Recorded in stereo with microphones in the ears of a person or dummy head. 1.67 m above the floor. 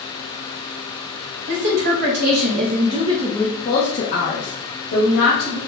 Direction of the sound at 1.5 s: 60° right (ahead or behind).